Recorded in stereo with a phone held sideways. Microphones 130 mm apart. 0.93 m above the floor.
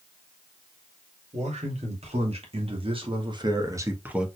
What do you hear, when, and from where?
1.3 s a man speaking: 60° right (ahead or behind), 3 m; by 4.3 s 5° right (ahead or behind), 1.0 m